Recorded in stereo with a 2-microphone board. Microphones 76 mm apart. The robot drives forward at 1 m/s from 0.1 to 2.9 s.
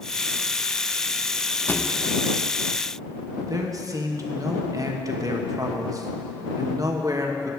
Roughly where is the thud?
Left.